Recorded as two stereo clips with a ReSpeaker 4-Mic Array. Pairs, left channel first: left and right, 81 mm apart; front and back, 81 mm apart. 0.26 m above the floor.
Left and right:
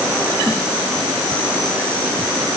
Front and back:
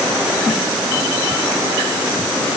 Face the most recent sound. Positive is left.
No sound to turn to.